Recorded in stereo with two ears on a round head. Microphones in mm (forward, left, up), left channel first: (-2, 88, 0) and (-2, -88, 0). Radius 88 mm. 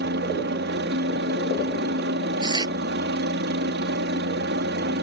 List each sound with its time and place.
0.0 s a helicopter: 55° right (ahead or behind)
2.4 s tearing paper: 20° right (ahead or behind)